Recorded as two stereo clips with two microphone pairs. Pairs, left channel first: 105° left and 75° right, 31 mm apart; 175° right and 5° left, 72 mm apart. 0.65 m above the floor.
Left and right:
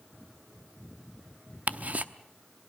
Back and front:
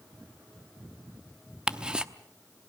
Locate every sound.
1.7 s ticking: 70° right, 0.8 m